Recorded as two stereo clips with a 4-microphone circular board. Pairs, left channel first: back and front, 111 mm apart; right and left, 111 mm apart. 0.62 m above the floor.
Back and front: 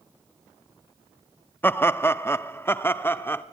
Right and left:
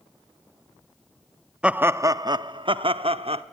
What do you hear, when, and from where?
1.6 s laughter: 155° left, 0.5 m; by 3.4 s 110° left, 1.2 m